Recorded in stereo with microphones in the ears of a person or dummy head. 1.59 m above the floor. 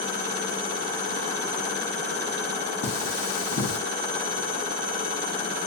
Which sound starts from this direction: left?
Cutlery clinking, at 2.8 s.